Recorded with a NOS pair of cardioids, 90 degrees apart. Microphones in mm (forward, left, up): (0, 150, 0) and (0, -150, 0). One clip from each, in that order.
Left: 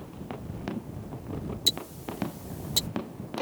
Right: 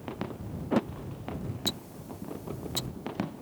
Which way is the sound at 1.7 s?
45° left.